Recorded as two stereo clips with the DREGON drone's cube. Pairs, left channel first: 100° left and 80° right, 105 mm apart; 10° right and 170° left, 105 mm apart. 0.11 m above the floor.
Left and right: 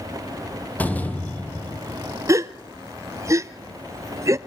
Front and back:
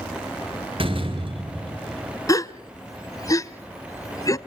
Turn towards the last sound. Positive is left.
turn(degrees=-50)